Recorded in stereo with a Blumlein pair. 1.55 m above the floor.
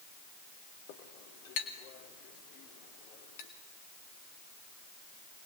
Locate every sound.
0.9 s a clink: 50° left, 3 m